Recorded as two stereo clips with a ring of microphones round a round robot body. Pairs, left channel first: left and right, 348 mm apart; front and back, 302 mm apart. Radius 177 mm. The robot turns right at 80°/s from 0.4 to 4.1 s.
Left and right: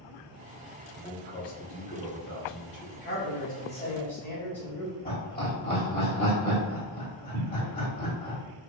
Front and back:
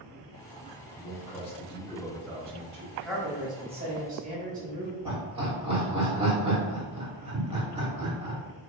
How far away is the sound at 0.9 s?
About 1.6 m.